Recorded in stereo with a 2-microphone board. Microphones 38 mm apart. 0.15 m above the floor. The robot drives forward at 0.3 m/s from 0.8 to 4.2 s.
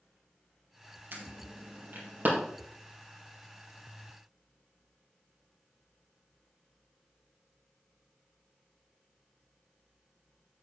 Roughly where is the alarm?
Right.